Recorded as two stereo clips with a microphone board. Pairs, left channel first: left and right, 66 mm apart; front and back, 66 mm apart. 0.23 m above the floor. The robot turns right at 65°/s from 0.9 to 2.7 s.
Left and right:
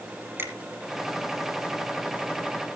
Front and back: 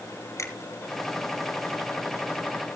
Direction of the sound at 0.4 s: 35° right.